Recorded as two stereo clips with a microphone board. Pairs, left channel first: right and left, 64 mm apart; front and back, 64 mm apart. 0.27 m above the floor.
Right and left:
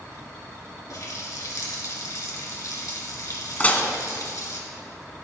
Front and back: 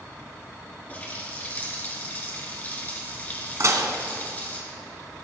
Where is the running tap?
60° right, 3 m.